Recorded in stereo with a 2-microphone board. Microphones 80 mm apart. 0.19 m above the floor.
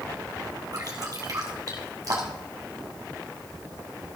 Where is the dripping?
45° right (ahead or behind), 2.5 m.